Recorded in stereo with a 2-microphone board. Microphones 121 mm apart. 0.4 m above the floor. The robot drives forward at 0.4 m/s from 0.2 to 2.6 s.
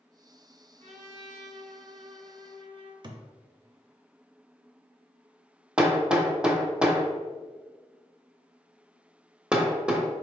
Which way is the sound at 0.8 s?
80° right.